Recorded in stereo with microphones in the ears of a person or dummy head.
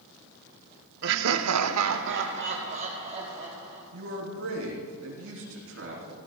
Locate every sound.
1.0 s laughter: 60° right (ahead or behind), 0.7 m; by 3.8 s 25° right (ahead or behind), 1.8 m
3.9 s a man speaking: 70° right (ahead or behind), 3.5 m